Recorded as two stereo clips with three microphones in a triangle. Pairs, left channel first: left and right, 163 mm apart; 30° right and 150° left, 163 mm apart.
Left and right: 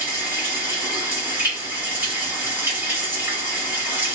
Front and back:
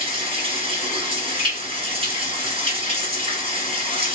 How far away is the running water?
About 1.6 m.